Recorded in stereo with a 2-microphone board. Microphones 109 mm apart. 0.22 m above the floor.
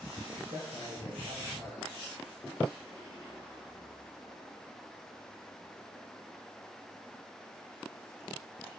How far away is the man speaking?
About 4.5 m.